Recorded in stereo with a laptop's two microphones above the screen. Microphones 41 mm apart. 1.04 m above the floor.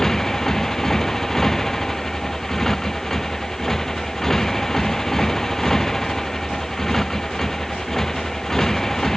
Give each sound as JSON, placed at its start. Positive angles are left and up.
{"t": 0.0, "sound": "a motorcycle", "side_deg": 10}